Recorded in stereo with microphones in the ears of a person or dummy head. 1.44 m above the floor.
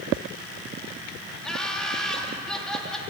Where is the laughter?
5° left (ahead or behind), 3.5 m.